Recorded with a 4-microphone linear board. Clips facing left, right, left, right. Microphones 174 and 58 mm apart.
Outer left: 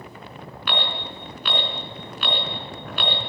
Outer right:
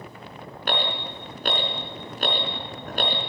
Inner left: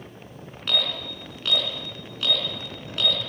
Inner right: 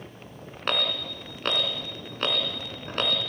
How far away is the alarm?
About 4 m.